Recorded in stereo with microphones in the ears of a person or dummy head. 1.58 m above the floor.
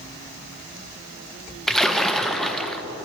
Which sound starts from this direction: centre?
A splash, at 1.7 s.